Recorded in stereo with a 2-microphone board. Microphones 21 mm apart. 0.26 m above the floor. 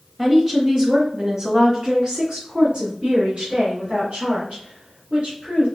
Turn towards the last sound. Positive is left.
turn(degrees=-70)  # may be behind; listen again after turning